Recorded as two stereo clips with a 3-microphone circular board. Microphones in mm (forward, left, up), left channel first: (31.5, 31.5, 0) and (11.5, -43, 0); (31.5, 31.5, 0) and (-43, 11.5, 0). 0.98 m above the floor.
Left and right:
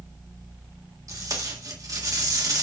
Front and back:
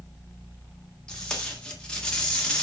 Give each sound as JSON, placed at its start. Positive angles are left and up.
{"t": 1.1, "sound": "tape being pulled", "azimuth_deg": -65, "distance_m": 1.8}